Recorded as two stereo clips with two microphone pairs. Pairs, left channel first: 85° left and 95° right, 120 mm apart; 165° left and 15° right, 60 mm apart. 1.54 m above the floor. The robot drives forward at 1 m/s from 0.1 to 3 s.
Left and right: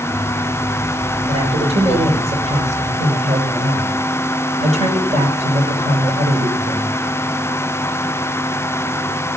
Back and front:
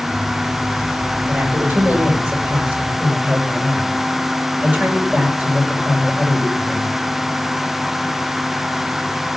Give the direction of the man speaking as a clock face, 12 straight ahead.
2 o'clock.